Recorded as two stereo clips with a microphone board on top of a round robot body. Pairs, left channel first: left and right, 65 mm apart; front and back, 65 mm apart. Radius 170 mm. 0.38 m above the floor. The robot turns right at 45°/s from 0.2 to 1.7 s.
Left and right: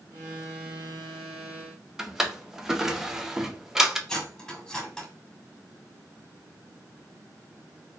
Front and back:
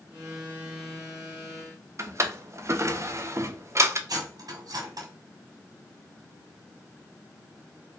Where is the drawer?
170° right, 0.8 m.